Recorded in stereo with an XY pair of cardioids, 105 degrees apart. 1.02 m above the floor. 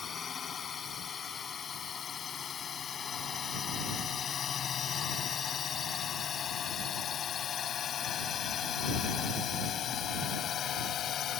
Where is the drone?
45° left; by 11.4 s 65° left.